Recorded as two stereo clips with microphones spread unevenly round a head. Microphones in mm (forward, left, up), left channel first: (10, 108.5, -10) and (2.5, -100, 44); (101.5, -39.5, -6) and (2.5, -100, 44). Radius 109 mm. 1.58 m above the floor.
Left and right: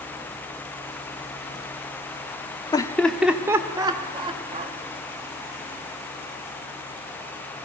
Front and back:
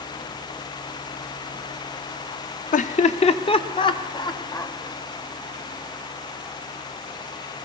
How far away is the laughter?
About 0.6 m.